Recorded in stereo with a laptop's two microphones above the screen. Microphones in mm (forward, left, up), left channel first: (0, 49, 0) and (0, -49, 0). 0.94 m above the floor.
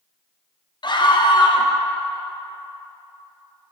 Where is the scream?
50° left (ahead or behind), 0.7 m.